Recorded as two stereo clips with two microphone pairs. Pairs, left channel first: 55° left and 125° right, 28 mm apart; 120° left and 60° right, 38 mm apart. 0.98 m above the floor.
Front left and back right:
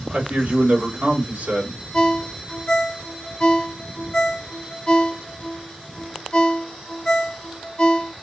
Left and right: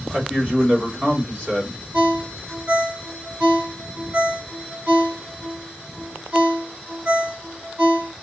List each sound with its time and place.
0.1 s a man speaking: 110° right, 3 m
1.9 s a ringtone: 5° right, 1.2 m